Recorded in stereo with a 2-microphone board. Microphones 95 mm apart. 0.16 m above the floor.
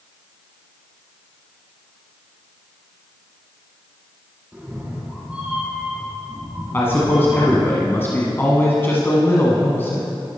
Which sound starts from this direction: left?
A man speaking, at 6.7 s.